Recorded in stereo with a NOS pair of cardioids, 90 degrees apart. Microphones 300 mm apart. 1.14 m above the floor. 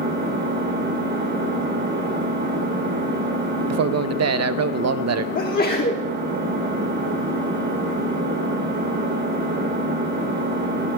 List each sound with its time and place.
0.0 s an engine running: 40° right, 3 m
3.7 s a man speaking: 60° right, 0.6 m
5.3 s a sneeze: 30° left, 1.2 m